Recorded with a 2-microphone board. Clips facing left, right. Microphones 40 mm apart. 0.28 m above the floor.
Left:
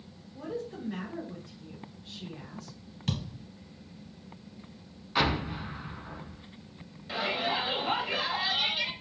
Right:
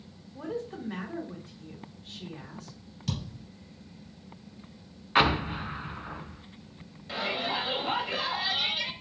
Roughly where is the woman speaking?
Right.